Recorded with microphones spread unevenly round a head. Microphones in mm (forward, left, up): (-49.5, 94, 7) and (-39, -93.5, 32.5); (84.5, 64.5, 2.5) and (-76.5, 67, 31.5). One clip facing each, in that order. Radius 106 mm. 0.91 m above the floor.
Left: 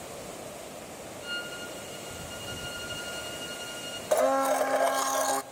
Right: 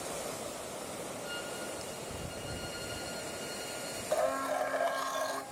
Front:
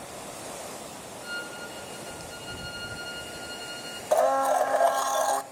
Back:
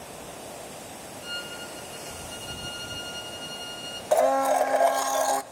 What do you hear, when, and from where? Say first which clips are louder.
1.2 s a violin: even, even; 110° left, 5 m
4.1 s a blender: left 8 dB, back 1 dB; 115° left, 0.9 m